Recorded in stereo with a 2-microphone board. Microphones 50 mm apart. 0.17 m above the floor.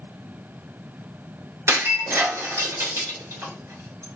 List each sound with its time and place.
1.7 s breaking glass: 65° right (ahead or behind), 1.5 m